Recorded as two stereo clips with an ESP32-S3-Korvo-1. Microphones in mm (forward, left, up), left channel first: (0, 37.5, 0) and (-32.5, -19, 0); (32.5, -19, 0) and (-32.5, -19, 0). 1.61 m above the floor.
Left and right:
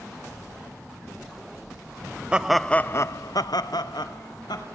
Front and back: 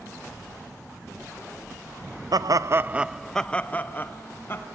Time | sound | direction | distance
2.3 | laughter | 165° left | 0.7 m